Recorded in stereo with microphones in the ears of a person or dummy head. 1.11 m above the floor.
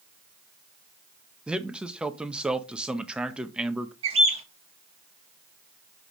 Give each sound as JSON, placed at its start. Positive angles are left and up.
{"t": 1.5, "sound": "a man speaking", "side_deg": -5, "distance_m": 0.8}
{"t": 4.0, "sound": "a bird", "side_deg": -35, "distance_m": 1.3}